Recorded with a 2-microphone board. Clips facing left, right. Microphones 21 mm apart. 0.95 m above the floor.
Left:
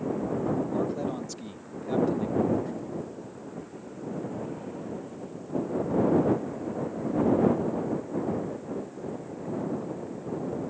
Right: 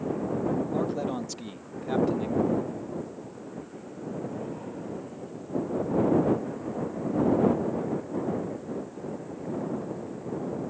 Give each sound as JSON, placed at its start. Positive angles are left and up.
{"t": 0.7, "sound": "a man speaking", "side_deg": -25}
{"t": 2.5, "sound": "breathing", "side_deg": 50}